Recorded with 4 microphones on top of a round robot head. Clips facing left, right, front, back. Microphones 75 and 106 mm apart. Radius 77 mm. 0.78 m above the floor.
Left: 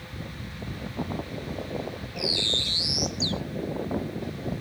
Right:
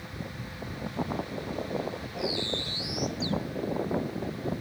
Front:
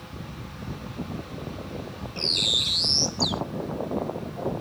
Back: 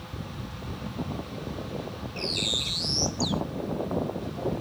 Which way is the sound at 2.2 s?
65° left.